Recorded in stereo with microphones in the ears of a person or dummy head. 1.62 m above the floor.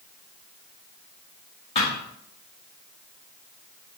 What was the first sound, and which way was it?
A thud, 30° left (ahead or behind).